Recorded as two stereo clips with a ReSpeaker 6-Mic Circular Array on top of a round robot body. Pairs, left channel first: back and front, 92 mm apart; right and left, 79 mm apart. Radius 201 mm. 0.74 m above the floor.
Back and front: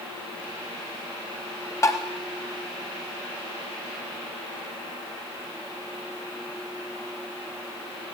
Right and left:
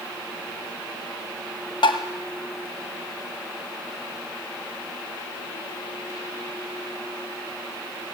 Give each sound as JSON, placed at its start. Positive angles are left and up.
{"t": 1.8, "sound": "tapping", "azimuth_deg": -120, "distance_m": 1.2}